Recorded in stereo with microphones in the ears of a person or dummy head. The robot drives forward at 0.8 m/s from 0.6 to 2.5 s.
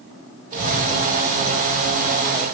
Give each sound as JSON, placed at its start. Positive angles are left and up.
{"t": 0.5, "sound": "a child speaking", "side_deg": -45, "distance_m": 3.5}